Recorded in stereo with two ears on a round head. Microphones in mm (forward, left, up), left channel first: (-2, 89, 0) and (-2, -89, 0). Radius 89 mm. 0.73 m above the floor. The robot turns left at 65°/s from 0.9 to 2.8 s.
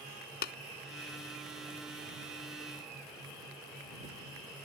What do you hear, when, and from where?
0.4 s tapping: 50° left (ahead or behind)